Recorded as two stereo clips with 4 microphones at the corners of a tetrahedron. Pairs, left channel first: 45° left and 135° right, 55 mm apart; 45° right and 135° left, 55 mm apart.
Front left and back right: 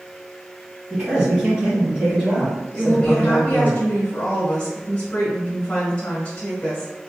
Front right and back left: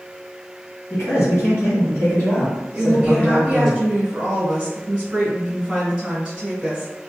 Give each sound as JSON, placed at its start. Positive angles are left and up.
{"t": 0.9, "sound": "a man speaking", "azimuth_deg": -60, "distance_m": 2.0}
{"t": 2.7, "sound": "a woman speaking", "azimuth_deg": 90, "distance_m": 1.1}